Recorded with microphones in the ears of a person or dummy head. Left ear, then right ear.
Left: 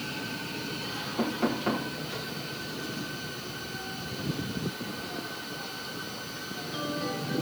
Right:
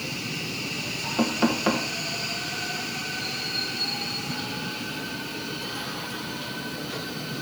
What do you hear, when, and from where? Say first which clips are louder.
1.2 s knocking: right 5 dB; 35° right (ahead or behind), 1.5 m